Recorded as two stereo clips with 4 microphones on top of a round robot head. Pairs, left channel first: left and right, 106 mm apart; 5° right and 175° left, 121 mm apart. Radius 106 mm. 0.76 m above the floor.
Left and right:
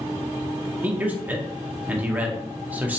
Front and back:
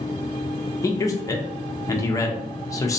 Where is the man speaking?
30° right, 0.7 m.